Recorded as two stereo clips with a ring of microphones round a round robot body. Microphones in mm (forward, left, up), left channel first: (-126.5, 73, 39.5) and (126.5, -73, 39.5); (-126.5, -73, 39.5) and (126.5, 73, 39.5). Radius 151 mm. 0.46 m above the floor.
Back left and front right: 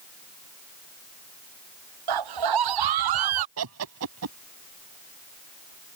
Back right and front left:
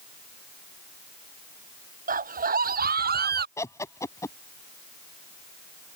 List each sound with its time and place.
2.1 s a scream: 35° right; by 3.5 s 30° right
3.6 s laughter: 70° right